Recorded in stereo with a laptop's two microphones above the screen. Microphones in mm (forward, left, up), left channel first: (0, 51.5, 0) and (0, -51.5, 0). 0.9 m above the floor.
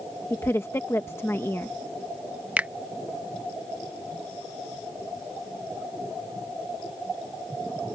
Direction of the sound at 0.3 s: 25° left (ahead or behind).